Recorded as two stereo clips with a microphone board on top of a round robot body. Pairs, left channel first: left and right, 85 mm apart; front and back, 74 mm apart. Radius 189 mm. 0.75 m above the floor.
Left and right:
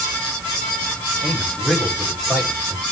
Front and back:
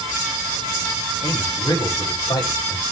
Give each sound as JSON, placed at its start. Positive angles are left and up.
{"t": 1.2, "sound": "a man speaking", "azimuth_deg": 5, "distance_m": 5.0}